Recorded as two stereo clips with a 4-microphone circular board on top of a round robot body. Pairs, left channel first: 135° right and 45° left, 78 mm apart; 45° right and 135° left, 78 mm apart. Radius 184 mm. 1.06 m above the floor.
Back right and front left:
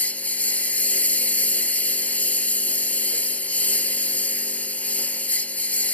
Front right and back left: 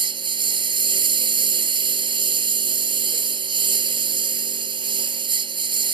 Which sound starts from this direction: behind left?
A lawn mower, at 0.0 s.